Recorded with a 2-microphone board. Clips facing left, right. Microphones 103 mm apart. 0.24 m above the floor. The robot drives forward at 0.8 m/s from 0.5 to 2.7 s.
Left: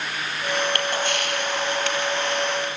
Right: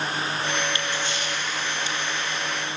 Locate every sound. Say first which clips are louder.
0.8 s a camera shutter: left 4 dB; 60° left (ahead or behind), 4.5 m; by 2.8 s 75° left (ahead or behind), 4 m